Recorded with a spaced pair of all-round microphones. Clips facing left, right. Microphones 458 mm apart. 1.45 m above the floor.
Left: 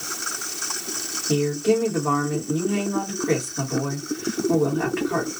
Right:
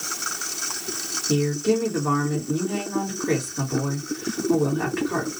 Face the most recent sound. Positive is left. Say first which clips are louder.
# left 1 dB
turn(degrees=0)  # may be behind; listen again after turning